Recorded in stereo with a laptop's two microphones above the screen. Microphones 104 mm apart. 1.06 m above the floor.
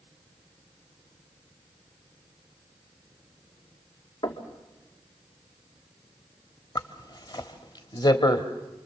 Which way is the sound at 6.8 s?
45° left (ahead or behind).